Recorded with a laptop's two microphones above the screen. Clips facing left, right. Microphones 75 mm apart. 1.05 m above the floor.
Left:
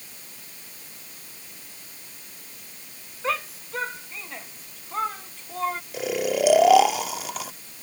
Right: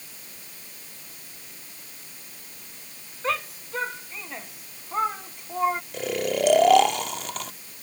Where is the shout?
Centre (ahead or behind); by 5.8 s 15° right (ahead or behind).